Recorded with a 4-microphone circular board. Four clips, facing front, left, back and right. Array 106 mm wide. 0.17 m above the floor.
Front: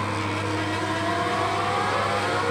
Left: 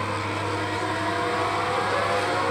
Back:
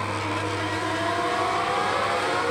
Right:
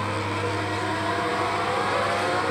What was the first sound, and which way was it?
Only background noise.